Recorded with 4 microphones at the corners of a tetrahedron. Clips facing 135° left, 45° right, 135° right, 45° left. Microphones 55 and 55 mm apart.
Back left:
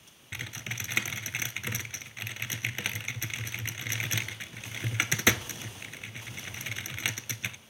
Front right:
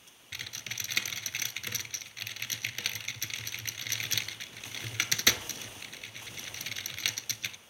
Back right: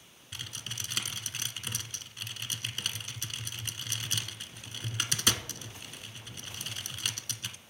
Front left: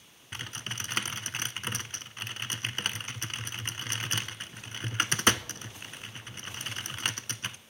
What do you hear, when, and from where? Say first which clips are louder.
0.3 s typing on a keyboard: back left 3 dB, front left 4 dB; 75° left, 0.6 m